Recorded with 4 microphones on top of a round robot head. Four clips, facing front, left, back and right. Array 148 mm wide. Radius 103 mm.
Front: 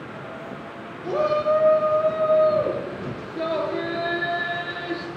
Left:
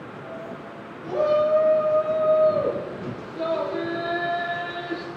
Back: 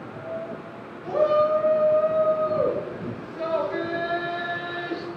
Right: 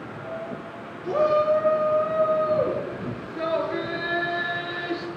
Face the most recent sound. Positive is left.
turn(degrees=-85)